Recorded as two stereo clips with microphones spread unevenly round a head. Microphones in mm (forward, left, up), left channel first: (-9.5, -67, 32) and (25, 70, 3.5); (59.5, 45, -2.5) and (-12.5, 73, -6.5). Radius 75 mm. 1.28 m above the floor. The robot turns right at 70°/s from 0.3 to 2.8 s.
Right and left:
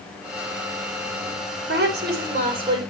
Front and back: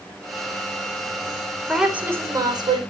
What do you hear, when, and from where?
1.7 s a woman speaking: 70° left, 4.5 m; by 2.8 s 145° left, 4.5 m